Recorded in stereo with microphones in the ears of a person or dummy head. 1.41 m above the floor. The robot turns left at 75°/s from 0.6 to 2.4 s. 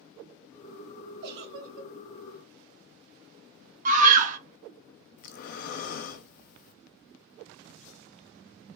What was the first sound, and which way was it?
A giggle, 50° right.